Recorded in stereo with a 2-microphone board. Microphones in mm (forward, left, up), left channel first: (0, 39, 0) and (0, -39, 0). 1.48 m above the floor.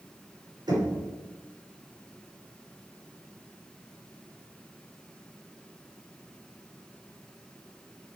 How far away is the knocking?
About 5.5 m.